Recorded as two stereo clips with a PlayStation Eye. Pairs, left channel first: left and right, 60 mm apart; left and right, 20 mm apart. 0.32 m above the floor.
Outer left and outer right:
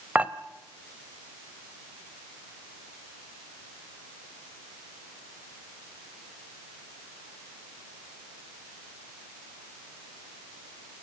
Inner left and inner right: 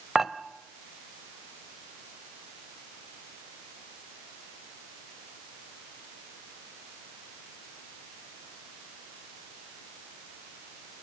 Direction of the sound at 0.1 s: 25° right (ahead or behind).